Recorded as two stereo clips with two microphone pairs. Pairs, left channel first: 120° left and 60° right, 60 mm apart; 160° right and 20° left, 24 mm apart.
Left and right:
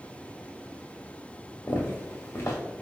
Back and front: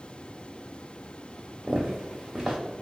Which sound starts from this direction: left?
Footsteps, at 1.7 s.